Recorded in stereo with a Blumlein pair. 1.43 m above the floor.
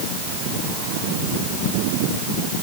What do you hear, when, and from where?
Only background noise.